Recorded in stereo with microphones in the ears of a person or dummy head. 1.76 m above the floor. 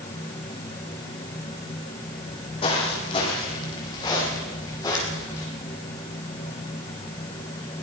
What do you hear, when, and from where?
2.2 s footsteps: 30° left (ahead or behind), 6.5 m; by 5.5 s 15° left (ahead or behind), 6.5 m